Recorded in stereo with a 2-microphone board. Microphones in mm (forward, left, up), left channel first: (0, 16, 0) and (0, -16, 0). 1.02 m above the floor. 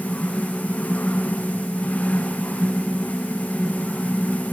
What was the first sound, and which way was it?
Only background noise.